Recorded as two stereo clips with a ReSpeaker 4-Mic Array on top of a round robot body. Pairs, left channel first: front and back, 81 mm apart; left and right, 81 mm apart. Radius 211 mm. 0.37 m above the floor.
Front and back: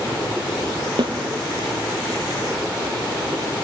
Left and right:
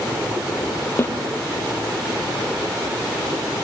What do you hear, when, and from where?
1.0 s a snare drum: 155° left, 3.5 m